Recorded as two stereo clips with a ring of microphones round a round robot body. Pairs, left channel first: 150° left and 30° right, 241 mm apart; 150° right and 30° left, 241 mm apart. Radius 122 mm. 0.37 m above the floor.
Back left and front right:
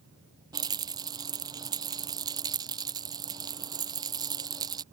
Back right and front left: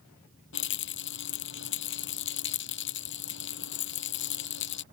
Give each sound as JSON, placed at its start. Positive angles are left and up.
{"t": 0.5, "sound": "a rattle", "azimuth_deg": -105}